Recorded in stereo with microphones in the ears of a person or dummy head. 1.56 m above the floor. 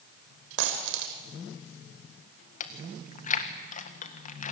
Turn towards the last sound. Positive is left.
turn(degrees=35)  # may be behind; listen again after turning